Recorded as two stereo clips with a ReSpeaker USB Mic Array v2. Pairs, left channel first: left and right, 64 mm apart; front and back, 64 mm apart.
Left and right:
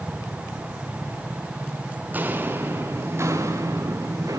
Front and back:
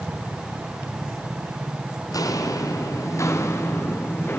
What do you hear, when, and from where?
2.1 s footsteps: 25° right, 3 m; by 4.4 s 55° right, 3.5 m